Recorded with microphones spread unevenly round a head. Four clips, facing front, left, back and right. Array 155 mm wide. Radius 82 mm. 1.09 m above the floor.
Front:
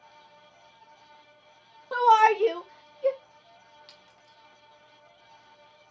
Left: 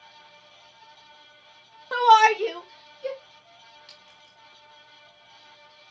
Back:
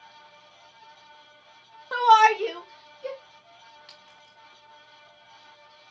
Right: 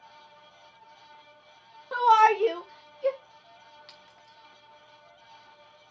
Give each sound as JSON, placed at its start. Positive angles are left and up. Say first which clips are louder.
{"t": 1.9, "sound": "a shout", "louder": "left 3 dB, back 2 dB", "azimuth_deg": 35, "distance_m": 1.4}
{"t": 3.9, "sound": "a clink", "louder": "right 1 dB, back 3 dB", "azimuth_deg": -145, "distance_m": 4.5}